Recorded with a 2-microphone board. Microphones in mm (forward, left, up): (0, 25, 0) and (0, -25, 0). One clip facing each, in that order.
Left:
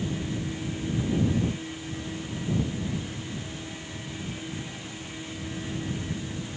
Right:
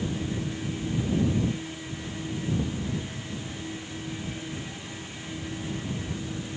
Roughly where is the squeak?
I don't hear a squeak.